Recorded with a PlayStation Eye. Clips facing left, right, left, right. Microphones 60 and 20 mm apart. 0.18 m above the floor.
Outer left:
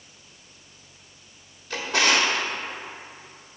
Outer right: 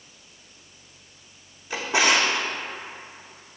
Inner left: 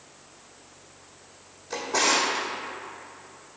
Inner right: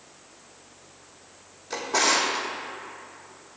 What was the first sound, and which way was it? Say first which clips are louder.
A drawer: outer right 1 dB, inner right 1 dB; 15° right (ahead or behind).